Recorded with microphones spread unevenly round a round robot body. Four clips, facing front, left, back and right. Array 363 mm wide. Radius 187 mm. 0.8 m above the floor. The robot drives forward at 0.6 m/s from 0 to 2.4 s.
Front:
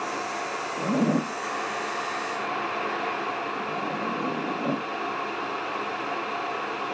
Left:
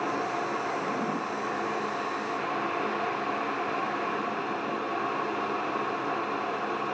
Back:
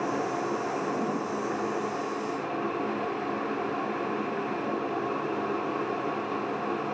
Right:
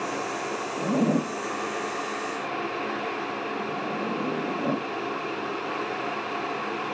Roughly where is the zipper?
Ahead right.